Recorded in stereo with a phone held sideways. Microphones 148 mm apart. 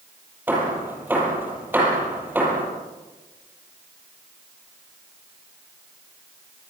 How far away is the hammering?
About 8 m.